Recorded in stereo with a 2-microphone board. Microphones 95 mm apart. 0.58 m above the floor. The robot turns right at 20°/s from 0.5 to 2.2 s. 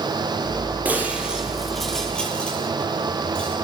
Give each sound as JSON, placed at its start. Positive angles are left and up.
{"t": 0.8, "sound": "breaking glass", "side_deg": -15, "distance_m": 8.5}